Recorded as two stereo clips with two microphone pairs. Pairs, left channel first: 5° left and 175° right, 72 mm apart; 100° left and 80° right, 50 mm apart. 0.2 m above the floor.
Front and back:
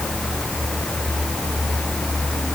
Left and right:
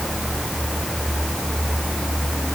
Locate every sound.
Only background noise.